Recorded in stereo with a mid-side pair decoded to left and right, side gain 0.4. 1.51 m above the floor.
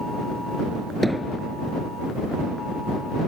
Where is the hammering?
20° right.